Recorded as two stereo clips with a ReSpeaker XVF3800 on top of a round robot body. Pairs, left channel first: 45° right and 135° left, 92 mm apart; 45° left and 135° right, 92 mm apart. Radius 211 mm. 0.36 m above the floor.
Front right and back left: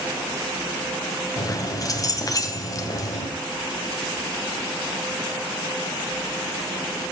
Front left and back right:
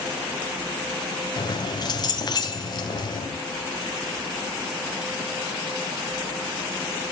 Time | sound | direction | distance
1.4 | keys jangling | 5° left | 3 m